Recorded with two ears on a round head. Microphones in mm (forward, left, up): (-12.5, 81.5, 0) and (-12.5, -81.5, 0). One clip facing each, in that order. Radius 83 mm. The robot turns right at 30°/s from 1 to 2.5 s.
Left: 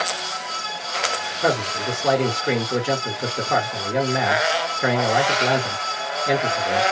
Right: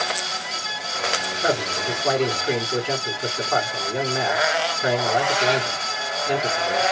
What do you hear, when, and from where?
1.4 s a man speaking: 55° left, 2 m; by 6.8 s 85° left, 2 m